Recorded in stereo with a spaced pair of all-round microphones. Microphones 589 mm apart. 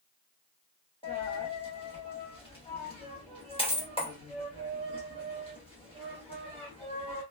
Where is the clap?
I don't hear a clap.